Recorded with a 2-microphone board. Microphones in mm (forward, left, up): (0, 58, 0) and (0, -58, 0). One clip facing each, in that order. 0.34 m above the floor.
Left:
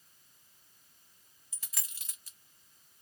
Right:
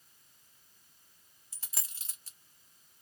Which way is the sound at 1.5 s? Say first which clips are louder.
Right 1 dB; 30° right (ahead or behind).